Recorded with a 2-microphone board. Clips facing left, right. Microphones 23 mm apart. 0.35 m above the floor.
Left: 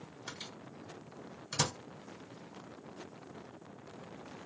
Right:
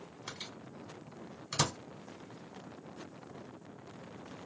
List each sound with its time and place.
0.3 s a microwave: 15° right (ahead or behind), 1.2 m